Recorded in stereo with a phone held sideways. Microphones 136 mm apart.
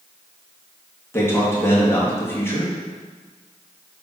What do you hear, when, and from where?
1.1 s a man speaking: 20° left (ahead or behind), 2 m